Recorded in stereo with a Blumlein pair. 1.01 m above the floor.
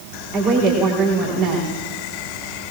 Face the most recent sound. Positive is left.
turn(degrees=-35)